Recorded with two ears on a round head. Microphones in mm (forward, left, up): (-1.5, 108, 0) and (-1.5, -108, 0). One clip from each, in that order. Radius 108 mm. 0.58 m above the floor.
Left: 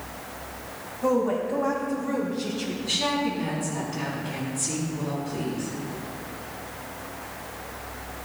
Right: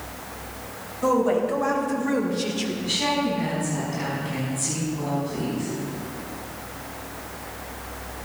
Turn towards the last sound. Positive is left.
turn(degrees=0)  # may be behind; listen again after turning